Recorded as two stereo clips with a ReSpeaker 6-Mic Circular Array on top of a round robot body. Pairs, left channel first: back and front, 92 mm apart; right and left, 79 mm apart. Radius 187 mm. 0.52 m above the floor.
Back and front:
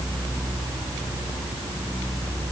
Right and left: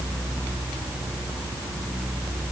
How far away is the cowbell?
I don't hear a cowbell.